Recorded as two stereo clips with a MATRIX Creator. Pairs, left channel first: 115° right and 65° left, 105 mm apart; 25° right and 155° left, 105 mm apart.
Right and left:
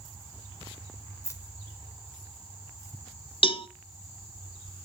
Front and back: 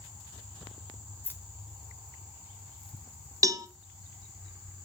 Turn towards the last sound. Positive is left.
turn(degrees=-145)